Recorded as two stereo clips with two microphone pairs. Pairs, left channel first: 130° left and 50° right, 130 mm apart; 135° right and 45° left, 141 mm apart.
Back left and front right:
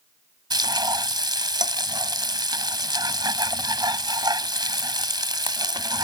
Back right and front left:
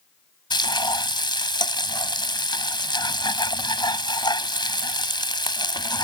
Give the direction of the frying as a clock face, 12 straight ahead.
3 o'clock.